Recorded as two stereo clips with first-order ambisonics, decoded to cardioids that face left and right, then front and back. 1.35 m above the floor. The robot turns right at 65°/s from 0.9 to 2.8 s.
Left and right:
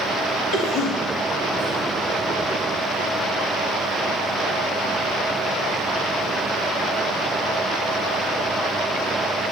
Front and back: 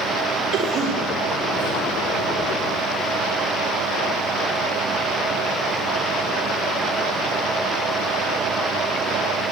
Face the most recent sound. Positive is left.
turn(degrees=-105)